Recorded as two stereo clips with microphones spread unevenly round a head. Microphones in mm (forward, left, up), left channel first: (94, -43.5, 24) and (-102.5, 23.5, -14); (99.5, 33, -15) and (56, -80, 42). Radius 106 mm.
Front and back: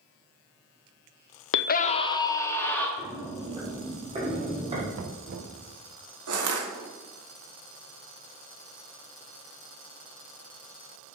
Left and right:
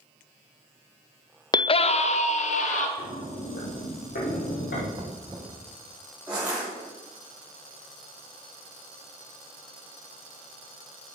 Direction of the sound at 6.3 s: 170° left.